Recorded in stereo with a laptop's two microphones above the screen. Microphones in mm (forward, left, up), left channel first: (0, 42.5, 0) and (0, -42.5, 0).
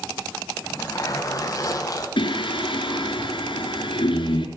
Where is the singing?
80° left, 3.5 m.